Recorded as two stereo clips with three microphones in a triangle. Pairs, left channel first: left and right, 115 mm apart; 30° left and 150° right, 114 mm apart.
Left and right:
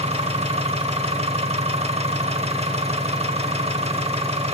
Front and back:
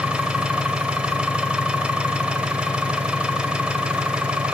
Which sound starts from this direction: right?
An engine running, at 0.0 s.